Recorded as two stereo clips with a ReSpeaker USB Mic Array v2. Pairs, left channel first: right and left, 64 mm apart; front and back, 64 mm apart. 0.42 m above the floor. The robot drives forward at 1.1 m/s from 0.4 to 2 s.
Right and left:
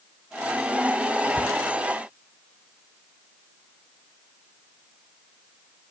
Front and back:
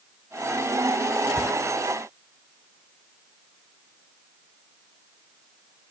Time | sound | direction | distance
1.4 | a cupboard door | 45° left | ?